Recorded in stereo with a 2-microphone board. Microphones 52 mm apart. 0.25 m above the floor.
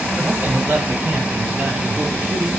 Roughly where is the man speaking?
Right.